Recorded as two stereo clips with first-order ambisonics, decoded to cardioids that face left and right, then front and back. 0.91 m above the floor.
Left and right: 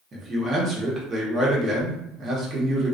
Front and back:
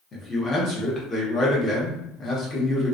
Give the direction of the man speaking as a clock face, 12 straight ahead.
2 o'clock.